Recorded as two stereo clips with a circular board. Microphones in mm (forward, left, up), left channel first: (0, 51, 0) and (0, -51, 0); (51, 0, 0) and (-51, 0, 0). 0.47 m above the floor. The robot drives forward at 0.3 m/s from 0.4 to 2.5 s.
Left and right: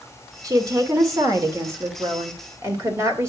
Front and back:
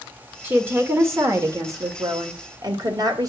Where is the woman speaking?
120° right, 1.5 m; by 3.3 s 140° right, 1.8 m.